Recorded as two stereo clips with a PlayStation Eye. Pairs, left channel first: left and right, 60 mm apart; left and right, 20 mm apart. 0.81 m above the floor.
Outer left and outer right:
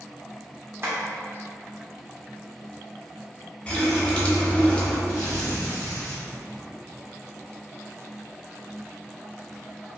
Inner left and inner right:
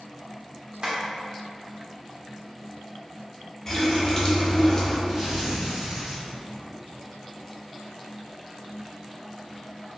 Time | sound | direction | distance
0.8 | tapping | 45° right (ahead or behind) | 0.8 m
3.7 | a running tap | 20° left (ahead or behind) | 0.5 m
5.1 | tearing paper | 55° right (ahead or behind) | 1.6 m